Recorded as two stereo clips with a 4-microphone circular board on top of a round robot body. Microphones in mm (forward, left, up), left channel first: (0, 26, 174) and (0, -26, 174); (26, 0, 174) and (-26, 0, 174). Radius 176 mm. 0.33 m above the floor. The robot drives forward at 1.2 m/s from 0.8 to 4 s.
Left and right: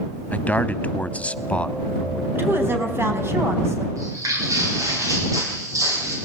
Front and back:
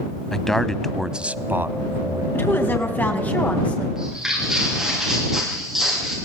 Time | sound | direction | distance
0.3 | a man speaking | 75° left | 1.2 m
2.3 | a woman speaking | 45° right | 5 m
4.0 | footsteps | 100° right | 9.5 m